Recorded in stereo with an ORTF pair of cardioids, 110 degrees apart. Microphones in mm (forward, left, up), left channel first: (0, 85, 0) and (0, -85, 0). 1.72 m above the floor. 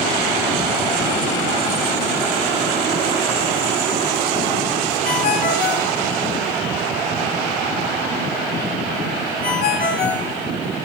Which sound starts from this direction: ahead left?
A ringtone, at 5.0 s.